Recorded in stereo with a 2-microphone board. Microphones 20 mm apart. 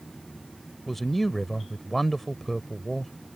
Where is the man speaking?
5° left (ahead or behind).